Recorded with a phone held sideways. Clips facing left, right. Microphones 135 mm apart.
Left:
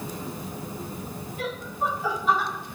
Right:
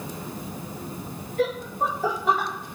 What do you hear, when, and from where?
1.4 s laughter: 85° right, 4 m; by 2.5 s 75° right (ahead or behind), 3.5 m